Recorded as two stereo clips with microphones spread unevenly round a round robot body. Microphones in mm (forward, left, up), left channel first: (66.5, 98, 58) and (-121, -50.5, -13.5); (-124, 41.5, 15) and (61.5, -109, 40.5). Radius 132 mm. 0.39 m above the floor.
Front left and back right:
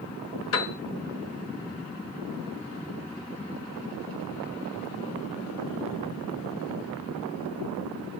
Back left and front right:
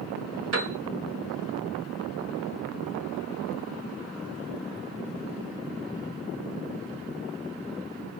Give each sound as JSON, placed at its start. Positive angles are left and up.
{"t": 0.5, "sound": "a piano", "azimuth_deg": 0, "distance_m": 1.1}